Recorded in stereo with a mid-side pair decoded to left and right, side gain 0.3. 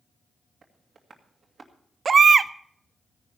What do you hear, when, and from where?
0.6 s tapping: 55° right, 2.5 m
2.0 s a baby crying: 55° right, 0.5 m